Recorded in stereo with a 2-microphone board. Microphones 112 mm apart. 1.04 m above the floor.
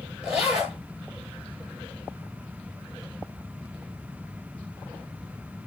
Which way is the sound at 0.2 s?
10° right (ahead or behind).